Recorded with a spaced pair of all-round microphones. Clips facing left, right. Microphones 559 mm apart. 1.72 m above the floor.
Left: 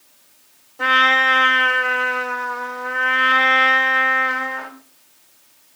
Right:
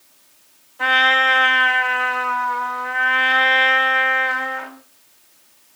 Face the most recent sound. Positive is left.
turn(degrees=65)  # may be behind; listen again after turning